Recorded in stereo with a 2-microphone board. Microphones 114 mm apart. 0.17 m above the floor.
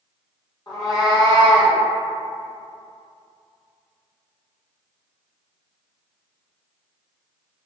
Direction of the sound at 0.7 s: 35° left (ahead or behind).